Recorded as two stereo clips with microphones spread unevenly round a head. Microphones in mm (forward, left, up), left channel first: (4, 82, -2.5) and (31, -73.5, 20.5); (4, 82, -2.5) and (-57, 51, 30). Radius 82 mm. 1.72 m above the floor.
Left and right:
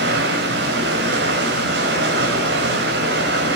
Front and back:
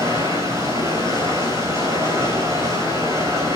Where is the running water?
95° right, 4 m.